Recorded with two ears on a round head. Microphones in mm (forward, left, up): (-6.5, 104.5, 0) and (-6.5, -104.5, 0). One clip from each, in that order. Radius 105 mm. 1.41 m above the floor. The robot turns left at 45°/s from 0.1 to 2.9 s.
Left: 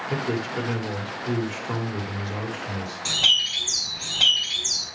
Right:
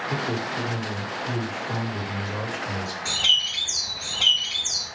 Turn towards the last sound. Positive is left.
turn(degrees=75)  # may be behind; listen again after turning